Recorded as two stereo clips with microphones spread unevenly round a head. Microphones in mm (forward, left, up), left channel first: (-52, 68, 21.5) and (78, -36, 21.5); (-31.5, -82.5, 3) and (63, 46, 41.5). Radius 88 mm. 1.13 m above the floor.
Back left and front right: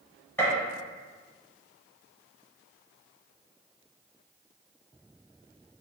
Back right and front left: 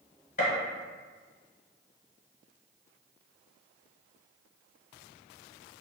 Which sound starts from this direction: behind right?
A gunshot, at 0.4 s.